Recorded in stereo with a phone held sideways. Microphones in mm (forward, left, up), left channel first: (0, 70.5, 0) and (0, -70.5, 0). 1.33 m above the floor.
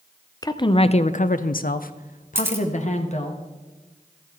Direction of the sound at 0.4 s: 25° left (ahead or behind).